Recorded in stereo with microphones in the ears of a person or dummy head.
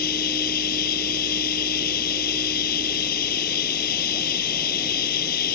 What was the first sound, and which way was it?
Running water, 50° left (ahead or behind).